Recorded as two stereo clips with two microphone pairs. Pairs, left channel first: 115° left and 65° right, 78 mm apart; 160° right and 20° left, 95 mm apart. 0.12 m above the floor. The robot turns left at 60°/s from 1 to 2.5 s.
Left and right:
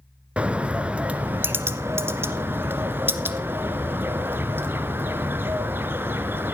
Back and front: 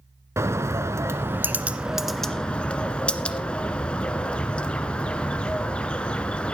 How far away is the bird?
About 1.1 m.